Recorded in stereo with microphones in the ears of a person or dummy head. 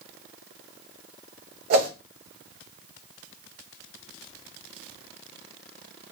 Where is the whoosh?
50° right (ahead or behind), 0.9 m.